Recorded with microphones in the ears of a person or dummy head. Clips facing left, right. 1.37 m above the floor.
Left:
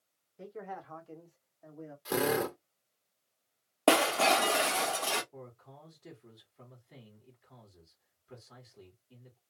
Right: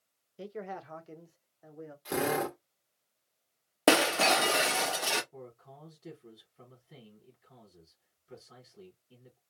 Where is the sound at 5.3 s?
10° right (ahead or behind), 1.9 m.